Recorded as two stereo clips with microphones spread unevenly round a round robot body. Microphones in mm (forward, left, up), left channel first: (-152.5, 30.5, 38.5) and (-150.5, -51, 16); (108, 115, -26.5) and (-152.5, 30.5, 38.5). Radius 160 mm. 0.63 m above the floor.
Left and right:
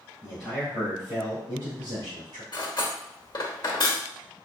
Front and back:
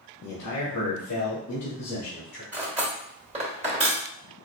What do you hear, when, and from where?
0.2 s a man speaking: 10° right, 2.5 m; by 2.4 s 60° right, 2 m
2.5 s cutlery clinking: 130° left, 1.4 m